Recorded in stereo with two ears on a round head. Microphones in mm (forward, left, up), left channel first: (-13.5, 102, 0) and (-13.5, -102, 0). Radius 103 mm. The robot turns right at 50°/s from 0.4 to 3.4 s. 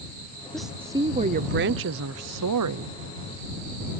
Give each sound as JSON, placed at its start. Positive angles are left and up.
{"t": 0.5, "sound": "a woman speaking", "azimuth_deg": 175}